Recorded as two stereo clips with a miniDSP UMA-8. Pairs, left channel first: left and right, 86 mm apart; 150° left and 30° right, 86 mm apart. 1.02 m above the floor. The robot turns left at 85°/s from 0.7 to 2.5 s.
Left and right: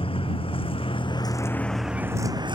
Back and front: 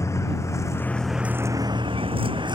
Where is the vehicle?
95° left; by 2.6 s 60° right.